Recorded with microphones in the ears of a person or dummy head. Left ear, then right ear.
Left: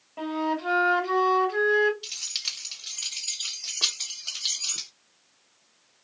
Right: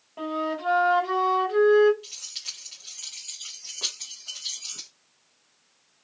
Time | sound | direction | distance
0.2 | a flute | 5° right (ahead or behind) | 2.5 m
2.0 | keys jangling | 25° left (ahead or behind) | 1.6 m